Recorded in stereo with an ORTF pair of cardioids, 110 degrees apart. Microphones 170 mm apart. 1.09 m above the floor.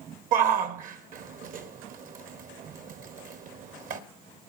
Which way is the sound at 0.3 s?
55° right.